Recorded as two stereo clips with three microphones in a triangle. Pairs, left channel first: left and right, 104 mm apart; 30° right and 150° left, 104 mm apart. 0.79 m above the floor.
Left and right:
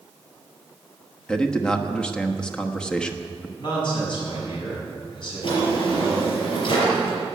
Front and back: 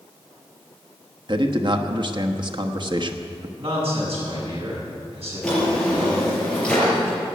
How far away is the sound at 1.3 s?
About 1.1 m.